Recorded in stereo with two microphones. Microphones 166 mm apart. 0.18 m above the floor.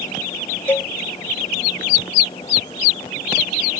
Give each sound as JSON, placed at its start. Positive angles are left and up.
{"t": 0.7, "sound": "a cowbell", "side_deg": 10}